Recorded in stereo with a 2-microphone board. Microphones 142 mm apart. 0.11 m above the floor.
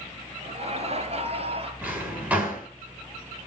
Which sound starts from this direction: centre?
A drawer, at 1.8 s.